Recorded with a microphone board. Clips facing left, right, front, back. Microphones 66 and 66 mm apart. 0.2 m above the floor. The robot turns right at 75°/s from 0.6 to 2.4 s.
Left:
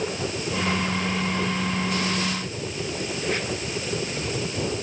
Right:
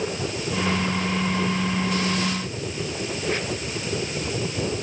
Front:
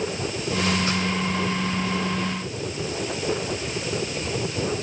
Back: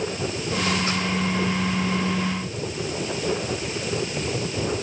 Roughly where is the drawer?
I don't hear a drawer.